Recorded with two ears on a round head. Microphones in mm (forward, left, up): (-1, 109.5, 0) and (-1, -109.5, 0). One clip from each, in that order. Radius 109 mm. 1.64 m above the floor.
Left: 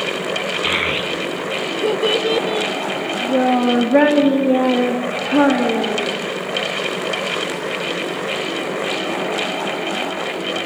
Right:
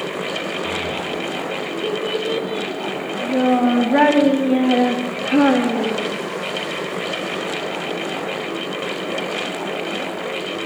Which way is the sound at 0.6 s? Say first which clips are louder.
Left 5 dB; 60° left (ahead or behind).